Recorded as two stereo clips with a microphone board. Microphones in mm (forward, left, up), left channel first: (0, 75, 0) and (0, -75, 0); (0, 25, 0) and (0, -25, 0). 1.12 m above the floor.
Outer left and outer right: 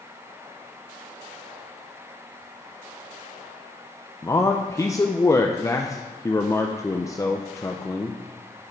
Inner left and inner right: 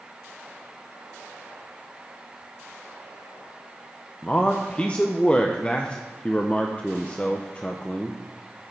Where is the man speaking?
20° left (ahead or behind), 0.5 m.